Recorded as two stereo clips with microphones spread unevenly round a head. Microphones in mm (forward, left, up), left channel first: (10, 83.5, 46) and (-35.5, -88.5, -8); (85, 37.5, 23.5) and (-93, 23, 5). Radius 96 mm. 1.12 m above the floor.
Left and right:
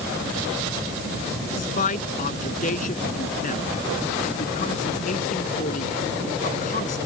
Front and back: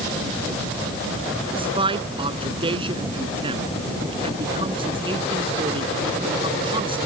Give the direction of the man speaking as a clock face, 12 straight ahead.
8 o'clock.